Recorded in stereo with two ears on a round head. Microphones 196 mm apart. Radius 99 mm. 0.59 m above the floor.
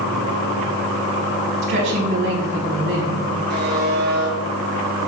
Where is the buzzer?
50° right (ahead or behind), 5.5 m.